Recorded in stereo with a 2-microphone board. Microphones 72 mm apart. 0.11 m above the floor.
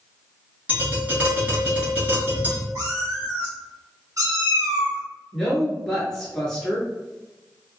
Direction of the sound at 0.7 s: 20° right (ahead or behind).